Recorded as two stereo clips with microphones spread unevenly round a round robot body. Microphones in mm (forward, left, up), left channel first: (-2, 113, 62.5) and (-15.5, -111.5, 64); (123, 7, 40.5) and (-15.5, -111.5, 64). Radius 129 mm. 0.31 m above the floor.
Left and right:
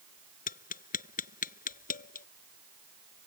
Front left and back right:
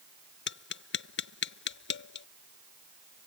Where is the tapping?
30° left.